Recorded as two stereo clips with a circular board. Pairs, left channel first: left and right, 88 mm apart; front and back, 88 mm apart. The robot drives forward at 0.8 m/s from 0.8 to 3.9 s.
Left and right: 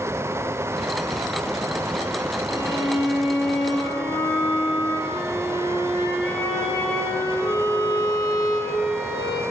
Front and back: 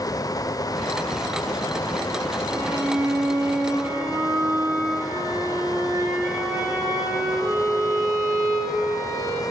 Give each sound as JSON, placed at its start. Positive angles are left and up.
{"t": 2.5, "sound": "a violin", "azimuth_deg": 115, "distance_m": 5.0}